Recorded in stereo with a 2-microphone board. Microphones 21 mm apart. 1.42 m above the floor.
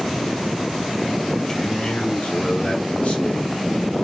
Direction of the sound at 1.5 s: 25° left (ahead or behind).